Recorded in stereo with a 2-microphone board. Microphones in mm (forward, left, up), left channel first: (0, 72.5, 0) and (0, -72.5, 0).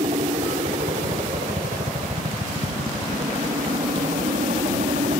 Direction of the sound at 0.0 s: 55° right (ahead or behind).